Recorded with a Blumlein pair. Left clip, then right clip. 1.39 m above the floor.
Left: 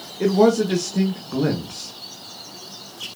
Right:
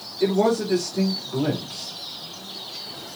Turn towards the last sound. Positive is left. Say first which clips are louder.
# left 4 dB
turn(degrees=50)